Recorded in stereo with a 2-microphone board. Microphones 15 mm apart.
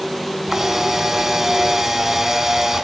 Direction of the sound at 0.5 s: 35° right (ahead or behind).